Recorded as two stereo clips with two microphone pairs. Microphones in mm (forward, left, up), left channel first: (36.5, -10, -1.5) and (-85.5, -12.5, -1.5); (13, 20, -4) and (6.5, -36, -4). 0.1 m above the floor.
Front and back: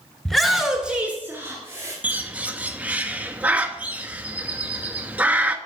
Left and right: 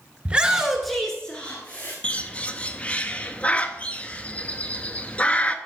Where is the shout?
85° right, 1.2 m; by 1.9 s 125° left, 1.5 m.